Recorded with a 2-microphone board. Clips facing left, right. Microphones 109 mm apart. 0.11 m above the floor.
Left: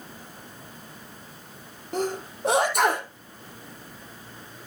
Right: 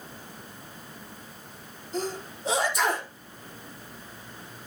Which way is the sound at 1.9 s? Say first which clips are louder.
Left 4 dB; 70° left (ahead or behind).